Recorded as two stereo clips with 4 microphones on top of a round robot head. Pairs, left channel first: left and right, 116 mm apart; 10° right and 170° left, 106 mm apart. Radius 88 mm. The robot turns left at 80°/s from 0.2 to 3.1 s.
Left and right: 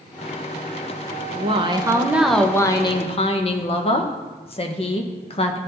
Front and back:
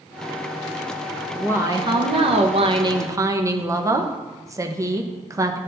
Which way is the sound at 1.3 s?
100° right.